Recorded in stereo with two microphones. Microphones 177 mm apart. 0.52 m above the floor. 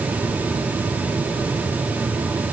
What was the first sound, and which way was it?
Only background noise.